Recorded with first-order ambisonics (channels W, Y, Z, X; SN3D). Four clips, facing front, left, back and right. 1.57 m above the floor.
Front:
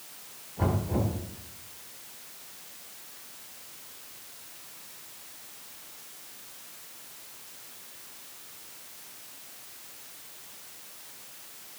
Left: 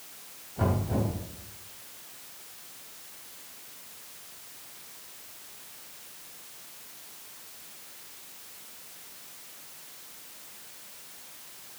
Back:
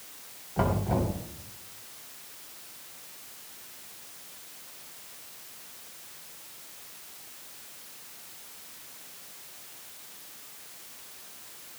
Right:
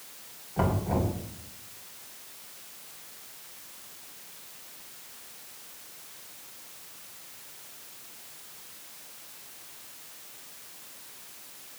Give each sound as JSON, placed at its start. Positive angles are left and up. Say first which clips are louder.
{"t": 0.6, "sound": "knocking", "louder": "right 1 dB, back 2 dB", "azimuth_deg": -145, "distance_m": 5.0}